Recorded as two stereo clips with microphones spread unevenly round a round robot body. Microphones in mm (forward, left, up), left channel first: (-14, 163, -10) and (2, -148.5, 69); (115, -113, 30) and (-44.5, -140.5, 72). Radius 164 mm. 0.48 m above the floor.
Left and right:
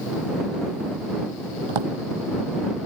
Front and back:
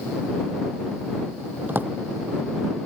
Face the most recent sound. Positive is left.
turn(degrees=-90)